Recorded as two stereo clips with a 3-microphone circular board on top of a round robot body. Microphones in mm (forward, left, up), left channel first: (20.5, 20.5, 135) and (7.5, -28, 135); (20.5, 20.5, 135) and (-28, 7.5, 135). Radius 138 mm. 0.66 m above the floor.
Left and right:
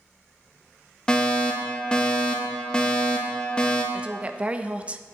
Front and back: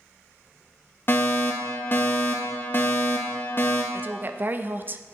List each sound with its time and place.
1.1 s a fire alarm: 10° left, 1.8 m
3.9 s a woman speaking: 155° right, 0.8 m